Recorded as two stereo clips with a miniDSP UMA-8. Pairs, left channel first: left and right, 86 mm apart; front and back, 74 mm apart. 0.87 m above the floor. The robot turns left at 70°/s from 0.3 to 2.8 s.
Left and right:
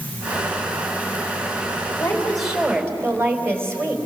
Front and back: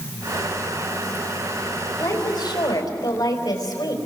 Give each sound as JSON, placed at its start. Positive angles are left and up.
{"t": 2.0, "sound": "a woman speaking", "azimuth_deg": 30, "distance_m": 4.0}